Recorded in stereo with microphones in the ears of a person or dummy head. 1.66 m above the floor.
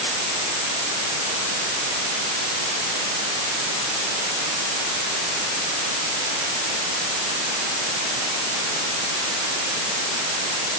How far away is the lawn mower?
I don't hear a lawn mower.